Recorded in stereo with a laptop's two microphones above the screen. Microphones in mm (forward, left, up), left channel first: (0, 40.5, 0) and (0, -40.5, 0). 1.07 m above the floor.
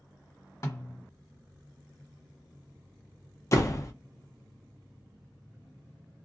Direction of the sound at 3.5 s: 40° left (ahead or behind).